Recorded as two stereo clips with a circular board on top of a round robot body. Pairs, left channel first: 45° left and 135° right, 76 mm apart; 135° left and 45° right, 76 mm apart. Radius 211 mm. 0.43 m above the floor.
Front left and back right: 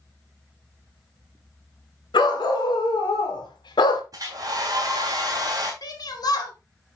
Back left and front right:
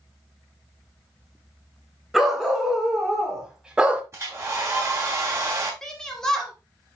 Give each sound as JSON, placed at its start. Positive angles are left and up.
{"t": 2.1, "sound": "a dog barking", "azimuth_deg": 45, "distance_m": 3.0}
{"t": 4.1, "sound": "a hair dryer", "azimuth_deg": -95, "distance_m": 3.5}
{"t": 5.8, "sound": "a shout", "azimuth_deg": 55, "distance_m": 3.0}